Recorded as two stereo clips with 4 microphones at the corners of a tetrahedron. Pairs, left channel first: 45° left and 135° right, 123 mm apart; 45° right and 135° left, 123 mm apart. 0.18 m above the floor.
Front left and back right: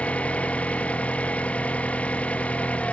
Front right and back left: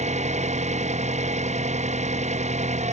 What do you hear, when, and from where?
0.0 s an engine running: 125° left